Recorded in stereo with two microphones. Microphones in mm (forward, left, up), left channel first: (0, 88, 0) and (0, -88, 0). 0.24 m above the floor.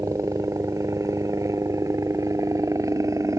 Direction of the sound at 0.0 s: 20° right (ahead or behind).